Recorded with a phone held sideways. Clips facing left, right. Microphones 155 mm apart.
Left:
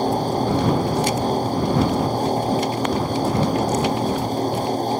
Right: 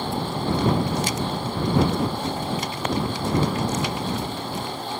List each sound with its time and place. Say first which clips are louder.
0.0 s a fan: left 6 dB; 40° left (ahead or behind)